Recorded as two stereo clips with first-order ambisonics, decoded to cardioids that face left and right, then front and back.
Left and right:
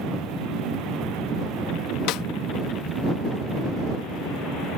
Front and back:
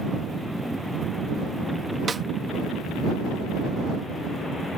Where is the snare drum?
105° left.